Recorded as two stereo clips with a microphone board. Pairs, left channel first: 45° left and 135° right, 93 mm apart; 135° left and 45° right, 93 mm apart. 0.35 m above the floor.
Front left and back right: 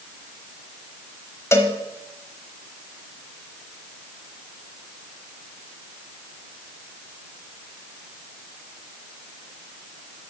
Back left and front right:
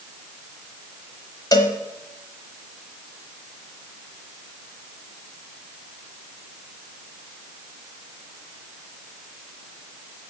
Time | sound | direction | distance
1.5 | a cowbell | 100° left | 1.0 m